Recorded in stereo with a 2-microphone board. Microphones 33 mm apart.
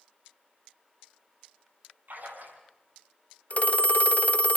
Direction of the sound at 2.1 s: 60° right (ahead or behind).